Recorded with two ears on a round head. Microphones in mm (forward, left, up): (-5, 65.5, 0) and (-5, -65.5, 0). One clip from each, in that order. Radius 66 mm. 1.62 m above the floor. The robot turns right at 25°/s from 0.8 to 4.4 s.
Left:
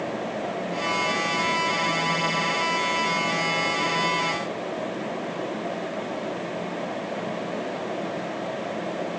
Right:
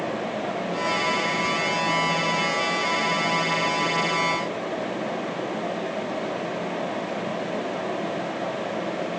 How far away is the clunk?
No clunk in this recording.